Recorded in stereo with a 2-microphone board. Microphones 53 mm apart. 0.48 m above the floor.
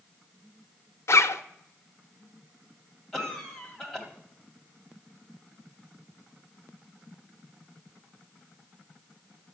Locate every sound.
1.1 s a zipper: 65° left (ahead or behind), 0.5 m
3.1 s a cough: 10° left (ahead or behind), 2.5 m